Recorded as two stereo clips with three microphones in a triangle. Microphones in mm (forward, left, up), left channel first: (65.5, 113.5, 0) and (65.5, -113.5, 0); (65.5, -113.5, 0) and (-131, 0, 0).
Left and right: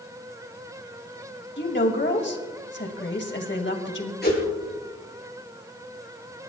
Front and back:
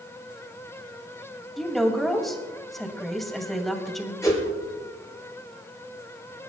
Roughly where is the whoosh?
Ahead left.